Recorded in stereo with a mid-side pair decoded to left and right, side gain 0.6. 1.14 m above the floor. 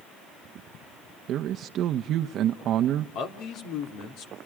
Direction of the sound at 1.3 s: 55° right.